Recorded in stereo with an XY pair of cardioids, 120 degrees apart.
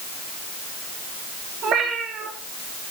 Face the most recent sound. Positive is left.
turn(degrees=-60)